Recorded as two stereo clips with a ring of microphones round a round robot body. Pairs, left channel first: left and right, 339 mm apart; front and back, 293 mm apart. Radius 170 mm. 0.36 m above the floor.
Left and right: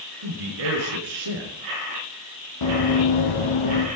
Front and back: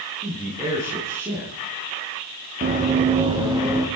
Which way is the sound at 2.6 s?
120° left.